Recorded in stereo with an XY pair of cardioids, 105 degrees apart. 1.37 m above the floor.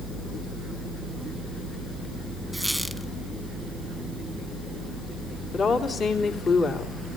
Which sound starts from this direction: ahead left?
A woman speaking, at 5.5 s.